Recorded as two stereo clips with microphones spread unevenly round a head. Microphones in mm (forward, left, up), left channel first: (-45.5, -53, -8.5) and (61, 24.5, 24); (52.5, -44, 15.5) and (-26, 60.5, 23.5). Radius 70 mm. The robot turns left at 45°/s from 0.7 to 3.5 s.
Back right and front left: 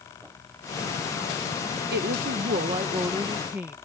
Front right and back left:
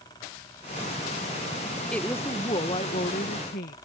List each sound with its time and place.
1.9 s a woman speaking: 30° left; by 3.8 s 40° right